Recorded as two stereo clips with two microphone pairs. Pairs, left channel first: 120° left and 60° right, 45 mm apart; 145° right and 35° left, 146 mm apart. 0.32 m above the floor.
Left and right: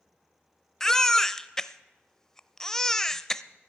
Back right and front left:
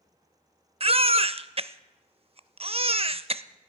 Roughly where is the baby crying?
Ahead left.